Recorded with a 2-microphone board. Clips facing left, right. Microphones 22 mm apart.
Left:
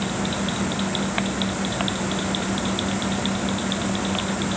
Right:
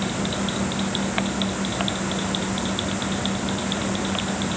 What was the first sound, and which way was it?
Only background noise.